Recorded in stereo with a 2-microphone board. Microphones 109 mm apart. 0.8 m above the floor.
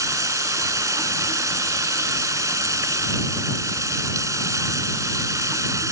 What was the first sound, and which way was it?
Running water, 25° right (ahead or behind).